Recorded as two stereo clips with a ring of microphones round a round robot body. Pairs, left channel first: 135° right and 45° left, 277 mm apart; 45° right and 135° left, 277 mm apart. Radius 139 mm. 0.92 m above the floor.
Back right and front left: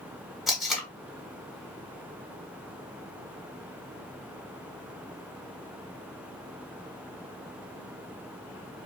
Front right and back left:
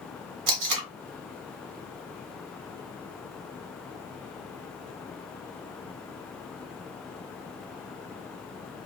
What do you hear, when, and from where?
0.5 s tape being pulled: 135° left, 0.9 m